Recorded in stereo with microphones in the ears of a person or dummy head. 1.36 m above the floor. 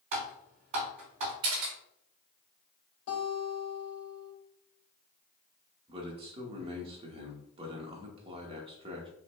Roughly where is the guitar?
Left.